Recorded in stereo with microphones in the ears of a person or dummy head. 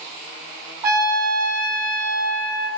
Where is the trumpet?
20° right (ahead or behind), 6 m.